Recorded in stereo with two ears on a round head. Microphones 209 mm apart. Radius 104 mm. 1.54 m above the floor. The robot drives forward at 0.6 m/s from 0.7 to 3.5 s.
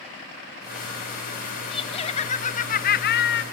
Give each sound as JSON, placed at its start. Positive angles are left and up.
{"t": 1.7, "sound": "laughter", "side_deg": 20, "distance_m": 1.3}